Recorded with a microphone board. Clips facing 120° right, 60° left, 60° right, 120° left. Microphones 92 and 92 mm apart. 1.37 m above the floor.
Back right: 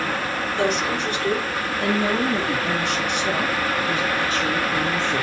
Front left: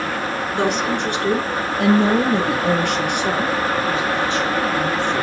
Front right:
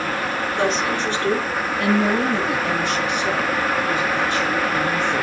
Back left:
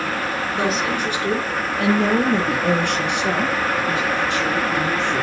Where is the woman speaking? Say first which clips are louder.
Front left 2 dB, front right 1 dB; 35° left, 2.5 m; by 5.2 s 135° left, 3 m.